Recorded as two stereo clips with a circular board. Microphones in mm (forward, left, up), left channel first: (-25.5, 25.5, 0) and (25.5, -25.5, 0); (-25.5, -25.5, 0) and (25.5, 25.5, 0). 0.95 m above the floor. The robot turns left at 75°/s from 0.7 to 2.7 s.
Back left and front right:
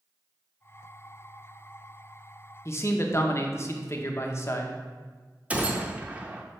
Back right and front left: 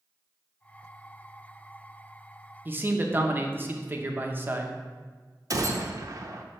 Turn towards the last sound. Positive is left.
turn(degrees=20)